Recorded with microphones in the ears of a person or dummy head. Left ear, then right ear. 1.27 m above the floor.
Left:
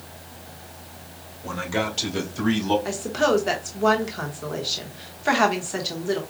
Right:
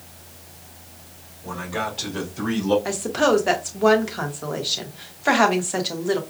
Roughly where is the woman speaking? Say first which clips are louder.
Right 2 dB; centre.